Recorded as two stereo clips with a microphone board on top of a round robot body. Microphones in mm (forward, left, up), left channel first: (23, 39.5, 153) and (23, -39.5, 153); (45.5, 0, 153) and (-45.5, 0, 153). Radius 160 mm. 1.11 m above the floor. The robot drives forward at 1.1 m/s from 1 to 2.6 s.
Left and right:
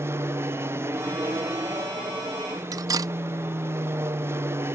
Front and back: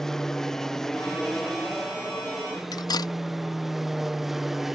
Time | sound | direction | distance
0.0 | an aircraft | 80° right | ?
2.7 | cutlery clinking | 45° right | ?